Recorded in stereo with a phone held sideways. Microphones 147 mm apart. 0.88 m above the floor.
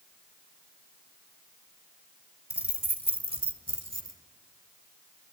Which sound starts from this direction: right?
Keys jangling, at 2.5 s.